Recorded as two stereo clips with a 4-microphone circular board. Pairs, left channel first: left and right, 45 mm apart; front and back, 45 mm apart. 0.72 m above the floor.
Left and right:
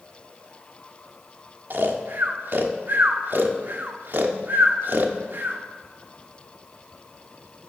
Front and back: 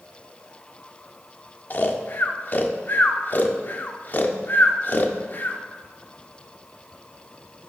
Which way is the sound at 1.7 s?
45° right.